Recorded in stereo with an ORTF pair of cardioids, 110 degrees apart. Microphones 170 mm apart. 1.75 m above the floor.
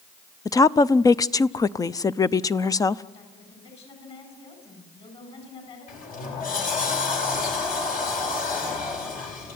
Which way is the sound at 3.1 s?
40° left.